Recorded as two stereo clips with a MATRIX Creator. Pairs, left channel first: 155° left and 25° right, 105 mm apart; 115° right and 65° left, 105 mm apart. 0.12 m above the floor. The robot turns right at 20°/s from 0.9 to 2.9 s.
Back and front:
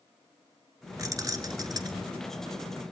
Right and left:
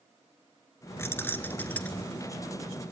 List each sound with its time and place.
1.0 s keys jangling: 60° right, 1.1 m; by 2.1 s 40° right, 1.1 m